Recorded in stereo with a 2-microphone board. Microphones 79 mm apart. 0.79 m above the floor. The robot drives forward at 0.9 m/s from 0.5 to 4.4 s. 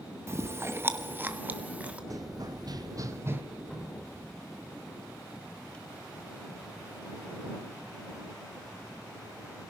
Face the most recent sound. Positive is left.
turn(degrees=10)  # may be behind; listen again after turning